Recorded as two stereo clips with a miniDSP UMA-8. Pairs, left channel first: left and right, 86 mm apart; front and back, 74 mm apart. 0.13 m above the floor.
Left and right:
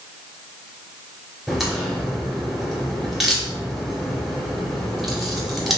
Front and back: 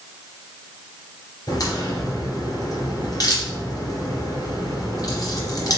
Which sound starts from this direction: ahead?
A crack, at 1.5 s.